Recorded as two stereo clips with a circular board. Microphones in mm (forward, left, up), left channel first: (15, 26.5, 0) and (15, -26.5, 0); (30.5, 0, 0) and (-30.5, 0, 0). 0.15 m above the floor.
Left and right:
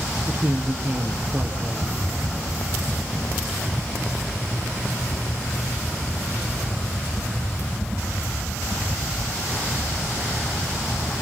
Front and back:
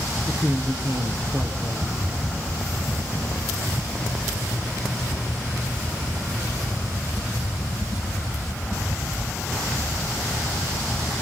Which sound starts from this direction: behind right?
A woman speaking, at 0.3 s.